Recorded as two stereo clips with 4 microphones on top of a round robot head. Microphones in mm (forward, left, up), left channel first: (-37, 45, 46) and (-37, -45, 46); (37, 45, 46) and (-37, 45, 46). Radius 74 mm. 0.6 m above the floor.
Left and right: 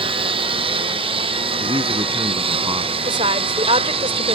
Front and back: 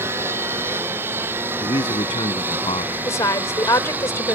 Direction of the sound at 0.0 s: 110° right.